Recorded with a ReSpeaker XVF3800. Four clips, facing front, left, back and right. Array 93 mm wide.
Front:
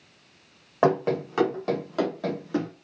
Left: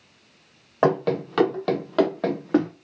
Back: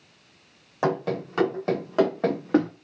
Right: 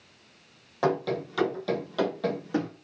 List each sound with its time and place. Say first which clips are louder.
0.8 s running footsteps: left 6 dB, front 3 dB; 55° left, 0.8 m; by 2.7 s 140° left, 1.1 m